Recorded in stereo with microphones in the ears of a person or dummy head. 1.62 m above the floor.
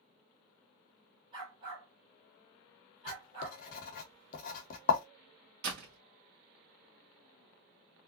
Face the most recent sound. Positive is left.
turn(degrees=-55)  # may be behind; listen again after turning